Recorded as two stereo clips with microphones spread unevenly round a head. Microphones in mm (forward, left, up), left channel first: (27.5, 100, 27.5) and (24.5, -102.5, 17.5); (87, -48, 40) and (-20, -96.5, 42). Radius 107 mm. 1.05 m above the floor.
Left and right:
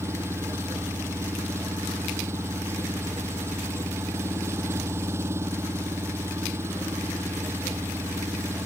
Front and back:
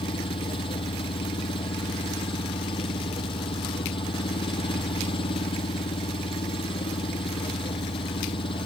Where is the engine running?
15° right.